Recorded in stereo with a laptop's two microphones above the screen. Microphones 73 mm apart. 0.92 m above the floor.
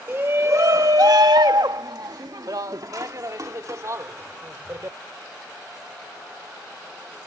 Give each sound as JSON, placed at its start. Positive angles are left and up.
{"t": 0.1, "sound": "a shout", "side_deg": -30}